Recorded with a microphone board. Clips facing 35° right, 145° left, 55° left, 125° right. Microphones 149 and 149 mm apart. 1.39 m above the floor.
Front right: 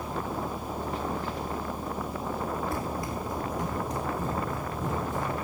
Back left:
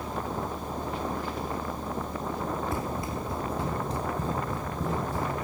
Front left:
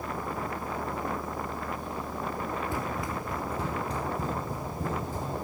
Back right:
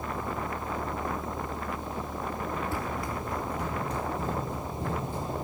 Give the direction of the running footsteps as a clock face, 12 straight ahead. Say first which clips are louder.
Even, even; 8 o'clock.